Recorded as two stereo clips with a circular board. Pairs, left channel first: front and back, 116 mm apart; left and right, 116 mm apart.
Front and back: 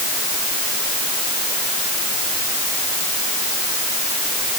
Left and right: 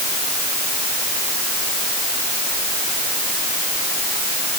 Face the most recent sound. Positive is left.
No sound to turn to.